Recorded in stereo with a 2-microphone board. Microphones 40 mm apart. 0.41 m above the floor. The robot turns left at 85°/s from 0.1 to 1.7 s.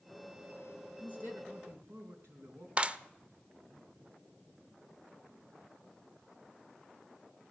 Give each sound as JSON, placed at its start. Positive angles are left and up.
{"t": 1.0, "sound": "a man speaking", "azimuth_deg": -40, "distance_m": 3.5}
{"t": 2.8, "sound": "a clap", "side_deg": -30, "distance_m": 0.6}